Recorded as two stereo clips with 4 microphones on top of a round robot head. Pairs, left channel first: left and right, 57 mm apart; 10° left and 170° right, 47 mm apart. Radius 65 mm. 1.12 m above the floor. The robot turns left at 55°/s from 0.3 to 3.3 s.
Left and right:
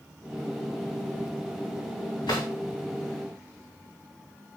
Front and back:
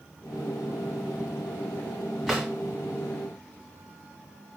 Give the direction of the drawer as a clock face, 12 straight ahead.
9 o'clock.